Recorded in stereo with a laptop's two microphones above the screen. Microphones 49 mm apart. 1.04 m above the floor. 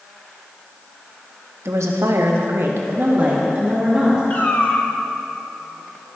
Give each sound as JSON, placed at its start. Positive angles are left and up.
{"t": 1.6, "sound": "a woman speaking", "side_deg": -70, "distance_m": 1.2}
{"t": 4.3, "sound": "a cat meowing", "side_deg": 40, "distance_m": 1.2}